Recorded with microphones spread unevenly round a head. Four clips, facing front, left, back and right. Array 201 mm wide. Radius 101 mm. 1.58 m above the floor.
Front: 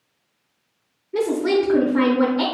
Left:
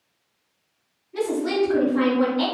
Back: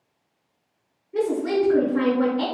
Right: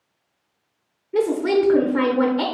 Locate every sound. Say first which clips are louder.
1.1 s a woman speaking: right 4 dB, front 3 dB; 55° right, 0.7 m